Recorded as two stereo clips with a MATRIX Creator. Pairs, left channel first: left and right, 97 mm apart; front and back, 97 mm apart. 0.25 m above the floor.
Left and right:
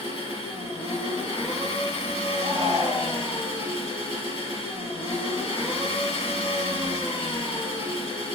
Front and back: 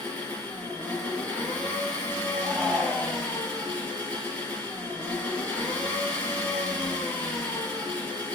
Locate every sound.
0.0 s an engine running: 75° left, 2.5 m
2.4 s a shout: 85° left, 2.5 m